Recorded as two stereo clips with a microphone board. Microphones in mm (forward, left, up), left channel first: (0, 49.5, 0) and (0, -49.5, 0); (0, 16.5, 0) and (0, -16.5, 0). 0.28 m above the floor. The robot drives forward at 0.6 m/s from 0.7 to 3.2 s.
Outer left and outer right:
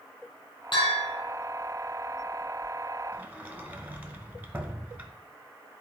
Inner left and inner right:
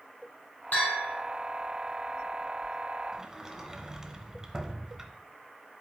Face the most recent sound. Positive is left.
turn(degrees=-15)  # may be behind; listen again after turning